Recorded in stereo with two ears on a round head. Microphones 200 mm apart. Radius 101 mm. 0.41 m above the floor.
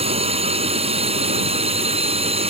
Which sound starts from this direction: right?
A drone, at 0.0 s.